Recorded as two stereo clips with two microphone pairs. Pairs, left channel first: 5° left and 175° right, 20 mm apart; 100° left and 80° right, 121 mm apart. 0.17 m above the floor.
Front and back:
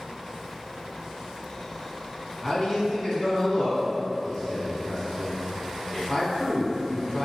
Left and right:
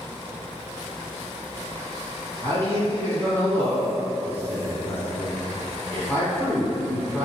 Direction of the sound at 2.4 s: 55° left.